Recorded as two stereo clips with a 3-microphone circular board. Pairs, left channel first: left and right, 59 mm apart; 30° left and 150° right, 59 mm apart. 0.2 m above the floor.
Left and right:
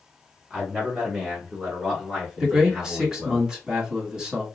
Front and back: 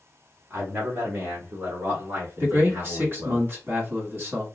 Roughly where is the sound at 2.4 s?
Behind.